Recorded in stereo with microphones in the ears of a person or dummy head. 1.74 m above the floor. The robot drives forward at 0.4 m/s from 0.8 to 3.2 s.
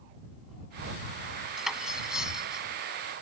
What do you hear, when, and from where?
1.6 s cutlery clinking: 5° right (ahead or behind)